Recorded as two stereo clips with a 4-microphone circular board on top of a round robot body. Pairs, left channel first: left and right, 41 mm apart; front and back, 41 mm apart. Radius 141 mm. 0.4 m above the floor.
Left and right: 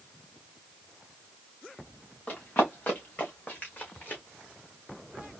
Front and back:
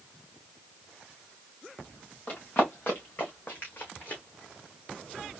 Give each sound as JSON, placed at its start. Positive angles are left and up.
{"t": 2.3, "sound": "running footsteps", "azimuth_deg": 45, "distance_m": 2.5}